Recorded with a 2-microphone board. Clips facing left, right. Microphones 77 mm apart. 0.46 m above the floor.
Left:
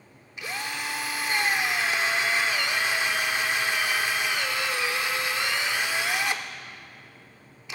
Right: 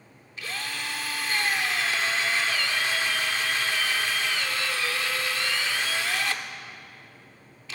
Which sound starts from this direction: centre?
A drill, at 0.4 s.